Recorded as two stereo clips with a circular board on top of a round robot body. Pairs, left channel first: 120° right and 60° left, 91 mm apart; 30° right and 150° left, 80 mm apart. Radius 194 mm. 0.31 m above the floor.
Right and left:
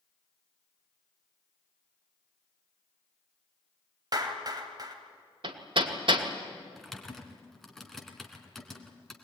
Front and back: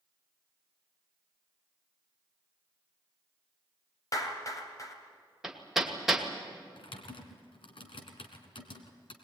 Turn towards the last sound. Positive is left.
turn(degrees=-35)